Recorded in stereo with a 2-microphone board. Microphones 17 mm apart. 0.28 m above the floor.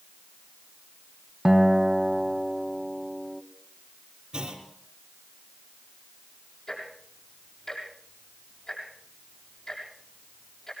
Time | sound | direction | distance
1.4 | a guitar | 15° right (ahead or behind) | 1.1 m
4.3 | a clunk | 45° right (ahead or behind) | 3.5 m
6.7 | ticking | 40° left (ahead or behind) | 7.5 m